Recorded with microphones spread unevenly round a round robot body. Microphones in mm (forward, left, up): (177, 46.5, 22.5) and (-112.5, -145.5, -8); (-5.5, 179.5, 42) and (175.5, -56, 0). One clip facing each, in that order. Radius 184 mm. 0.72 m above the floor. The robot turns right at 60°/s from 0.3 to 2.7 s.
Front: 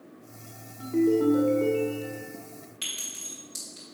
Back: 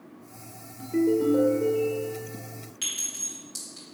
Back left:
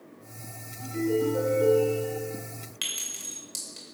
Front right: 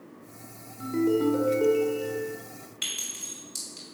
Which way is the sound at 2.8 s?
130° left.